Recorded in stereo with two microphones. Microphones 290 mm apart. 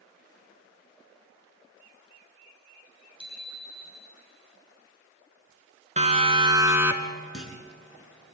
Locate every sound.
3.2 s a bicycle bell: 15° right (ahead or behind), 5.5 m; by 4.2 s 25° right (ahead or behind), 5 m
6.0 s a siren: 25° right (ahead or behind), 2 m; by 7.2 s centre (ahead or behind), 1.9 m
7.3 s a clunk: 50° left (ahead or behind), 5.5 m